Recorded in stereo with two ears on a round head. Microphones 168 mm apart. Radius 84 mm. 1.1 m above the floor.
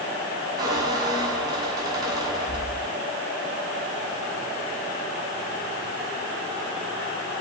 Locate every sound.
0.6 s a squeak: 20° right (ahead or behind), 6 m